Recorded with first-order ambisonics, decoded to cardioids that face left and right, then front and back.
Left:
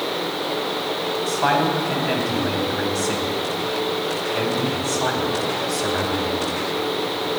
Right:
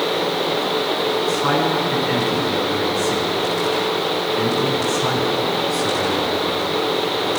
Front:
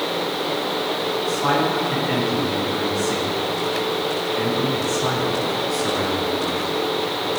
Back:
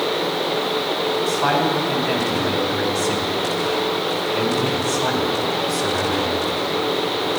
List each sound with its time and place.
1.3 s a man speaking: 120° left, 4.5 m